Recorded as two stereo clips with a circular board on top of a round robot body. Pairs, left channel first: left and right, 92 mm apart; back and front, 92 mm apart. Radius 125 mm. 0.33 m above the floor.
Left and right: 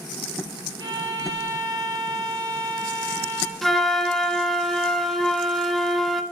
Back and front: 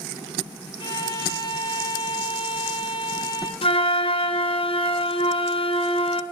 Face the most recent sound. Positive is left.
turn(degrees=175)